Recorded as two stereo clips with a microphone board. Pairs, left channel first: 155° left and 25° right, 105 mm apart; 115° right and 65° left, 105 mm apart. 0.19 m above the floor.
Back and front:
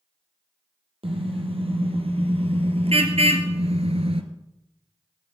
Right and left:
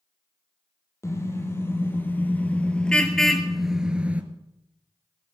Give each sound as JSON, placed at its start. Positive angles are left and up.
{"t": 1.0, "sound": "a car horn", "azimuth_deg": -50, "distance_m": 3.0}